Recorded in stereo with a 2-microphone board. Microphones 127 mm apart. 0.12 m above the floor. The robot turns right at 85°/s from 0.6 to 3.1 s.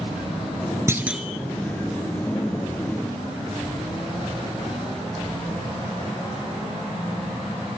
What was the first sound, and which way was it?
A clunk, 30° right.